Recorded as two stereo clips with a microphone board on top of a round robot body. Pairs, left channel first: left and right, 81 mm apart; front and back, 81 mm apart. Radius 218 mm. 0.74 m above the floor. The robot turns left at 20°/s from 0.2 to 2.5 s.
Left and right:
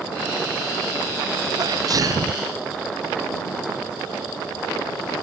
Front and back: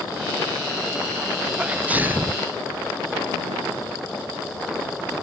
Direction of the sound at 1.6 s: 105° right.